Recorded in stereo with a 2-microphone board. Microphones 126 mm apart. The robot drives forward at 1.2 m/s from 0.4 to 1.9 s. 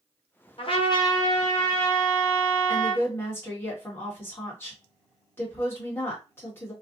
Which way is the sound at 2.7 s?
20° left (ahead or behind).